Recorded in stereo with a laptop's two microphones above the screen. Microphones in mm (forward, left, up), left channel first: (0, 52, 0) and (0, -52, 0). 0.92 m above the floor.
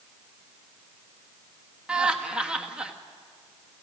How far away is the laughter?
About 1.7 m.